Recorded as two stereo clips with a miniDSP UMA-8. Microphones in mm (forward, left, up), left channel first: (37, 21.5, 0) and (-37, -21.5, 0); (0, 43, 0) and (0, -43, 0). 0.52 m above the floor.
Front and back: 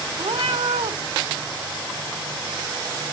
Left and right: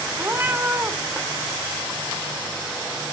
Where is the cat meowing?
160° right, 1.4 m.